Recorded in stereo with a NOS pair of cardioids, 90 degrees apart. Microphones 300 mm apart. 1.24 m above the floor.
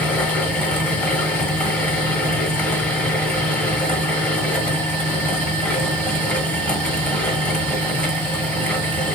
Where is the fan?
5° left, 0.8 m.